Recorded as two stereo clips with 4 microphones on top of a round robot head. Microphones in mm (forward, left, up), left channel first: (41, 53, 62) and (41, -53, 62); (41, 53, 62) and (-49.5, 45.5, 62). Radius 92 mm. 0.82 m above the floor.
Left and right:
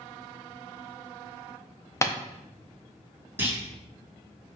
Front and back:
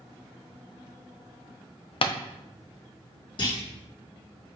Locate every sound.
2.0 s tapping: 25° left, 0.6 m
3.4 s a clunk: 20° right, 1.8 m